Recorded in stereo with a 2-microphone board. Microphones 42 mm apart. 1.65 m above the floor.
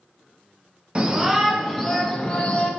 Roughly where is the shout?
Right.